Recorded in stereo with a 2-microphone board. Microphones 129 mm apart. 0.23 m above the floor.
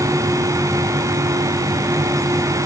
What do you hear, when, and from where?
Only background noise.